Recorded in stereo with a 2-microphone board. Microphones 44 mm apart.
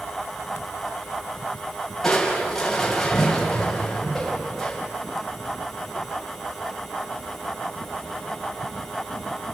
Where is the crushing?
10° left (ahead or behind), 5.5 m.